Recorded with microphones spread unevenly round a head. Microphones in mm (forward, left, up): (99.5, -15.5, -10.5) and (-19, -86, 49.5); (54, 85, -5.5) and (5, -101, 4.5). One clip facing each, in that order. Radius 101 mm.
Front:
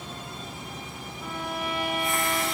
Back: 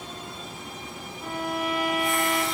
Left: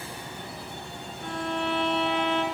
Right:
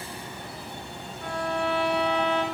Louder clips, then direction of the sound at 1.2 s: Back 4 dB, right 2 dB; 145° left.